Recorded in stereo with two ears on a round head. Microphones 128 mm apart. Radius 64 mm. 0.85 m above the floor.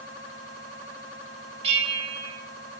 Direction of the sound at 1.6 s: 45° right (ahead or behind).